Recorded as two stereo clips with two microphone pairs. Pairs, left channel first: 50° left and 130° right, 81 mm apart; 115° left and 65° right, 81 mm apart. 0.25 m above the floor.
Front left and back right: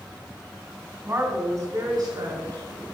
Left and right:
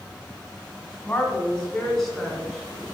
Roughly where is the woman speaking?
Behind.